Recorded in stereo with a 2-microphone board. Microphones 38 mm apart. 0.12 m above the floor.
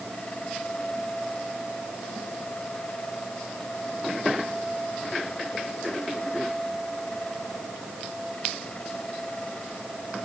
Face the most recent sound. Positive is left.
No sound to turn to.